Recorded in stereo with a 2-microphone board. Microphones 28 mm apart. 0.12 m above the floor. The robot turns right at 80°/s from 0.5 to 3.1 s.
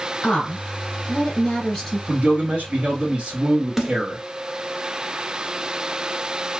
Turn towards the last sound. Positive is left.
turn(degrees=-10)  # may be behind; listen again after turning